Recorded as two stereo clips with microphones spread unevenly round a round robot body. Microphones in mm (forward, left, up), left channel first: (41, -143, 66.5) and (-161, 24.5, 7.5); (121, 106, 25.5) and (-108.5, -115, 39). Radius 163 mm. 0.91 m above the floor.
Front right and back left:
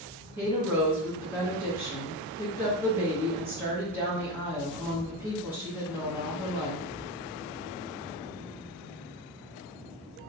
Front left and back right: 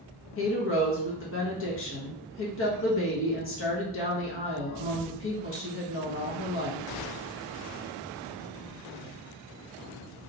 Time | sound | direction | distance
0.4 | a woman speaking | 75° left | 1.2 m